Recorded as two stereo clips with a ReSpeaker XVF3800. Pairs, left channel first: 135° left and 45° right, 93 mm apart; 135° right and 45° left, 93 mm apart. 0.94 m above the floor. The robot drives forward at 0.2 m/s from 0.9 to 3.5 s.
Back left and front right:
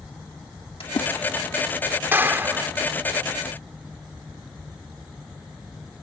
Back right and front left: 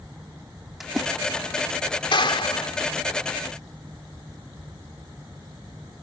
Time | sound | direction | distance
0.8 | a splash | 130° left | ?
2.1 | a clap | 110° right | ?